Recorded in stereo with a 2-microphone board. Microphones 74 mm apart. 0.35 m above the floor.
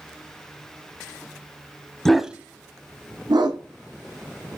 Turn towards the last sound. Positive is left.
turn(degrees=-85)